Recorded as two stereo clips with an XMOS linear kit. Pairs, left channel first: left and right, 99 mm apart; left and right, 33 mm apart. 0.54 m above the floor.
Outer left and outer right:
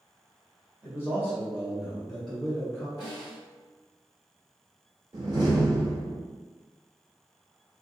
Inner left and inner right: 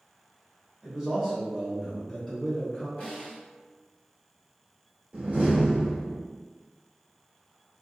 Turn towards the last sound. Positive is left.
turn(degrees=-45)  # may be behind; listen again after turning